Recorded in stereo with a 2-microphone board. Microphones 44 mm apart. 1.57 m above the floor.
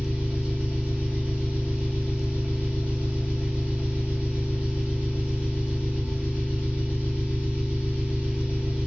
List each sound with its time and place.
0.0 s an engine running: 35° right (ahead or behind), 1.0 m